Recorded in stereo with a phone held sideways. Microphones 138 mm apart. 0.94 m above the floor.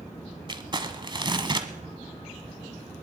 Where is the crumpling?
35° right (ahead or behind), 1.1 m.